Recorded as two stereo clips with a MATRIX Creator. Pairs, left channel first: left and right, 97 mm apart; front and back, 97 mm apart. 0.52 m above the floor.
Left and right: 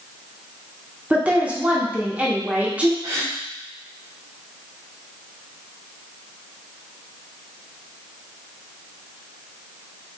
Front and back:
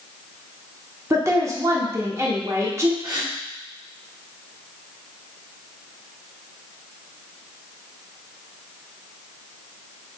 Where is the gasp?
140° right, 1.4 m.